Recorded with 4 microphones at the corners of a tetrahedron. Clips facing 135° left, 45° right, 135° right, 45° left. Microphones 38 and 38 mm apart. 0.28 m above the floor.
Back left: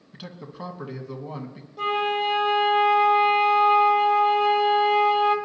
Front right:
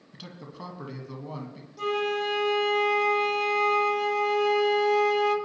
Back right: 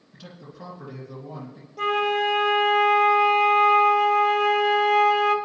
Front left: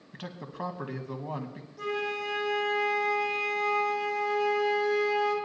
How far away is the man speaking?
About 1.6 m.